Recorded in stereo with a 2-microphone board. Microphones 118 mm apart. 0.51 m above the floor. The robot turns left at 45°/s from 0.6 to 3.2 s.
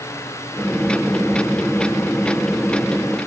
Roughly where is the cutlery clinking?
I don't hear cutlery clinking.